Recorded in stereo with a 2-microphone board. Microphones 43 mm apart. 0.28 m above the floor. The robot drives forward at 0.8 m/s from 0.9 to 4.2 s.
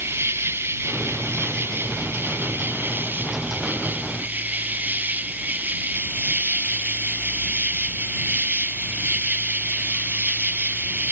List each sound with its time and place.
0.0 s an insect: 75° right (ahead or behind); by 11.1 s 45° right (ahead or behind)